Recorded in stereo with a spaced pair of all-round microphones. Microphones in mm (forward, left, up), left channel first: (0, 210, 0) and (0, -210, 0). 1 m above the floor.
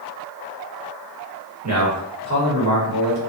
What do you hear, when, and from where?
1.6 s a man speaking: 40° right (ahead or behind), 1.3 m